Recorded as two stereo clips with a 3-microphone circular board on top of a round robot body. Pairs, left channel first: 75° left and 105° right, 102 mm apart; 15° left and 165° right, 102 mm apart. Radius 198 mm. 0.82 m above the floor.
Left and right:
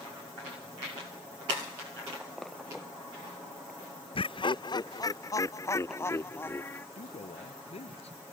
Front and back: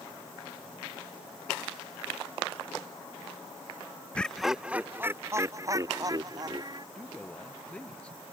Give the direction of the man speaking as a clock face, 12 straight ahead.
9 o'clock.